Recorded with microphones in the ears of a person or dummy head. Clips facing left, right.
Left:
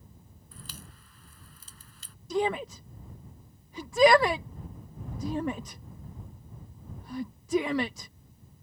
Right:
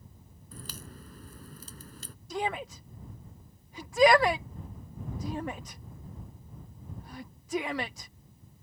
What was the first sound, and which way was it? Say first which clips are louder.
A crack: right 4 dB; 40° right (ahead or behind).